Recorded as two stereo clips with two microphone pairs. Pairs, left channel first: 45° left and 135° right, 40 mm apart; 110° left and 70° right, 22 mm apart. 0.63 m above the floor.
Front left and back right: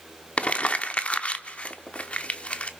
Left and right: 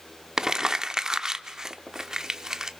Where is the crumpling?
5° right, 0.9 m.